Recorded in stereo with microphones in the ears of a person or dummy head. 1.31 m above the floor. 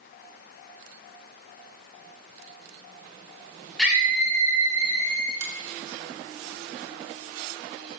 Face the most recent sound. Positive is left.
turn(degrees=-45)  # may be behind; listen again after turning